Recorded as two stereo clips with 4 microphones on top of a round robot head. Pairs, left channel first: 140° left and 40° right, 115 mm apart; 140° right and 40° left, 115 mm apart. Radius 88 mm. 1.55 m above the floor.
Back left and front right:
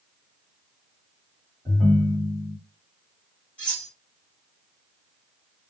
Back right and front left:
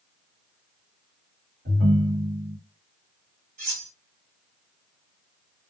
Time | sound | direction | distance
1.6 | a ringtone | 35° left | 1.4 m
3.6 | cutlery clinking | 55° left | 1.3 m